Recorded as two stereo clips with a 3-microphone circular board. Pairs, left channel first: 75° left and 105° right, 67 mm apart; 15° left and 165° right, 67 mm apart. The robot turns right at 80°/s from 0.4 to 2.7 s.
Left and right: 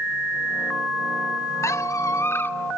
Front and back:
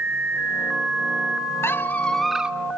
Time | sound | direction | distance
1.6 | a squeak | 55° left | 0.9 m